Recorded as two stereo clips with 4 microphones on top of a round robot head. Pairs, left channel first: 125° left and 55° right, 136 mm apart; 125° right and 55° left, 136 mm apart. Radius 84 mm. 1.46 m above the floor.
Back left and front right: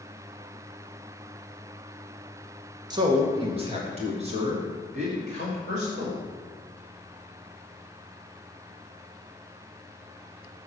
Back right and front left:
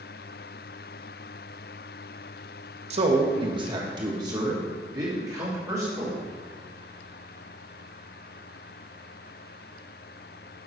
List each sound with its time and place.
2.9 s a man speaking: 10° left, 1.1 m; by 6.2 s 15° right, 4 m